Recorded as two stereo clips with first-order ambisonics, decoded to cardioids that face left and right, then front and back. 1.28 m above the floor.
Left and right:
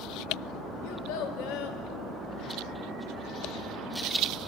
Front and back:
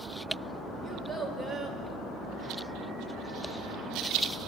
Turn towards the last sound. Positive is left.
turn(degrees=100)